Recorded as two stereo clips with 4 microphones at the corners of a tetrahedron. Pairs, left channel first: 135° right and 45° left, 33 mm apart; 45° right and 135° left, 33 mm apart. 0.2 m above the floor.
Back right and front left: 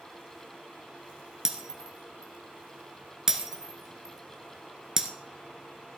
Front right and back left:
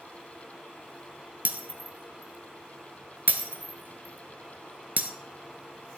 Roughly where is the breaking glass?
Behind left.